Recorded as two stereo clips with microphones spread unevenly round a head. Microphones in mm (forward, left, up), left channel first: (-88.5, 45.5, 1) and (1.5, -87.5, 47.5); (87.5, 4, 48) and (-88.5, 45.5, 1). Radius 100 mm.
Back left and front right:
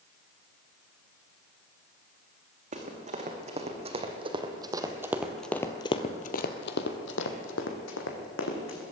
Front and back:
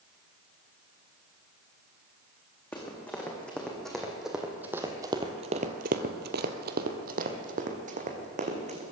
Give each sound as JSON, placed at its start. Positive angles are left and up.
{"t": 2.7, "sound": "running footsteps", "azimuth_deg": -90, "distance_m": 3.0}